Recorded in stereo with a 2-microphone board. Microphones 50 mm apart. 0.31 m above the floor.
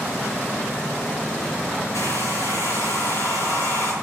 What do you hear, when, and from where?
1.9 s a hair dryer: 70° left (ahead or behind), 5 m